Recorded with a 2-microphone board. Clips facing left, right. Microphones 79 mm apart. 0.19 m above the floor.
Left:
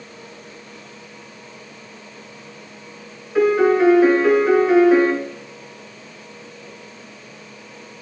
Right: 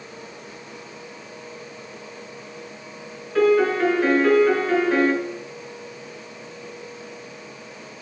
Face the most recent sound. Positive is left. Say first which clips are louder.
# left 3 dB
turn(degrees=10)  # may be behind; listen again after turning